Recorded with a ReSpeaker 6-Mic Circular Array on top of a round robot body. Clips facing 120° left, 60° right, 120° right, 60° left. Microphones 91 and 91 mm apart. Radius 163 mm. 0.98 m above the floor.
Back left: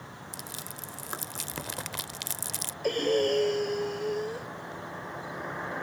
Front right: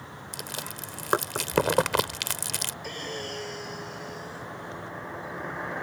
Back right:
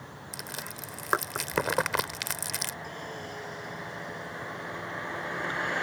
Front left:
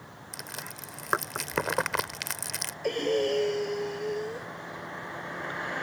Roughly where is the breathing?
Left.